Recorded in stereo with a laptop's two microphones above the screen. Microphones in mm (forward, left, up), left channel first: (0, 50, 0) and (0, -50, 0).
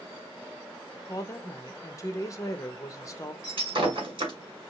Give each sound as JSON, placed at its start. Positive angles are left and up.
{"t": 1.0, "sound": "a woman speaking", "side_deg": 35, "distance_m": 0.7}
{"t": 3.4, "sound": "breaking glass", "side_deg": -60, "distance_m": 2.0}